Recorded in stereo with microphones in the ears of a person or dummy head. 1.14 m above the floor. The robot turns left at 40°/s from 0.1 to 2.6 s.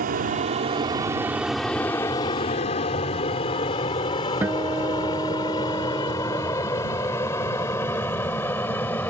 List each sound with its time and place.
0.0 s an aircraft: 45° right (ahead or behind); by 9.1 s 10° left (ahead or behind)
4.4 s a guitar: 10° right (ahead or behind)